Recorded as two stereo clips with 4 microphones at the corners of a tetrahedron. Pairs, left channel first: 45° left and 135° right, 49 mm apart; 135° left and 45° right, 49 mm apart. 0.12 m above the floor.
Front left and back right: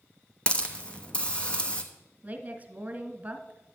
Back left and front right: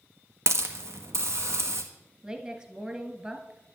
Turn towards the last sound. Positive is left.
turn(degrees=-105)